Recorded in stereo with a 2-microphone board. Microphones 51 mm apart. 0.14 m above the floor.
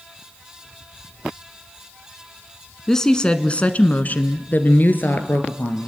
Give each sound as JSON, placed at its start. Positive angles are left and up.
{"t": 2.9, "sound": "a woman speaking", "side_deg": 10, "distance_m": 1.2}